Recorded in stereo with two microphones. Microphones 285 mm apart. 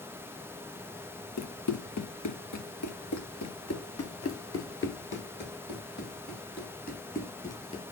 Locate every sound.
1.4 s running footsteps: 65° left (ahead or behind), 1.3 m; by 7.8 s 25° left (ahead or behind), 3.5 m